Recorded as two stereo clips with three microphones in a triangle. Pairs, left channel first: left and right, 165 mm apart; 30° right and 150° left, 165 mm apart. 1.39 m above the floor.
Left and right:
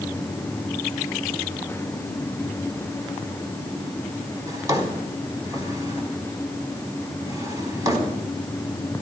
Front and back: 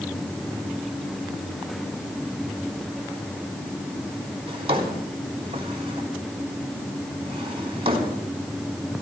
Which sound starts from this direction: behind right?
A drawer, at 4.5 s.